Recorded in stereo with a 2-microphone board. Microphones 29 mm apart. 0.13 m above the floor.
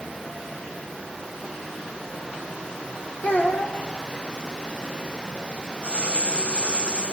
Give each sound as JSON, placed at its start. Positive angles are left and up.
{"t": 3.2, "sound": "a child speaking", "side_deg": 70, "distance_m": 4.0}
{"t": 5.8, "sound": "writing", "side_deg": 40, "distance_m": 10.0}